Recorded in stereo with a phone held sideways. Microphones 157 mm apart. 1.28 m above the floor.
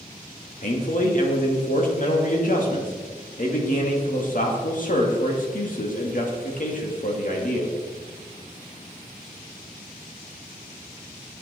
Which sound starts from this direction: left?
A man speaking, at 0.6 s.